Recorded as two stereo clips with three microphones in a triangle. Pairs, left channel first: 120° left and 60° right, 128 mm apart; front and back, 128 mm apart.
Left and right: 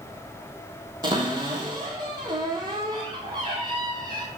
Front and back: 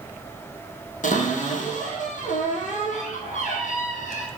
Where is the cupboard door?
5° right, 1.6 m.